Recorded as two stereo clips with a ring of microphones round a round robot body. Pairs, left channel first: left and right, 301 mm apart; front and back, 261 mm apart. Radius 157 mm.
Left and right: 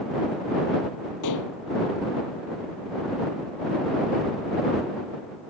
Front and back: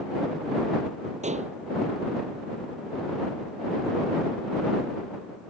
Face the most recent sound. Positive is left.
turn(degrees=115)